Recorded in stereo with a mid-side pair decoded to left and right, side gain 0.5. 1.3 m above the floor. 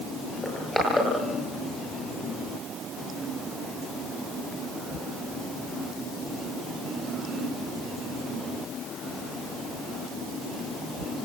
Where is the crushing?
15° left, 8 m.